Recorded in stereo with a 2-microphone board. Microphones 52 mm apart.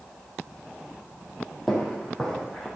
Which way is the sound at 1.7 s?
10° left (ahead or behind).